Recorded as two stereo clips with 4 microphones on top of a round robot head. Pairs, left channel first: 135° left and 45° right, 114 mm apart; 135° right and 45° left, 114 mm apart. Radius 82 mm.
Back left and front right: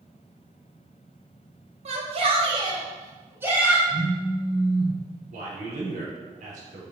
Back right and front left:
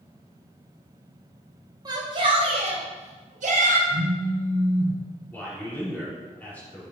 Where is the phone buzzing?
40° left, 1.7 m.